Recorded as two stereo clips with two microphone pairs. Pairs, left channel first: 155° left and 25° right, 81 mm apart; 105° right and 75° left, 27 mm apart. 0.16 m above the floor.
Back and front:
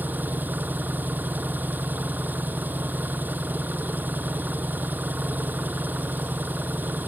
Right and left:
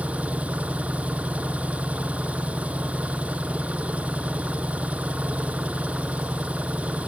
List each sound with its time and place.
0.0 s an engine running: 40° left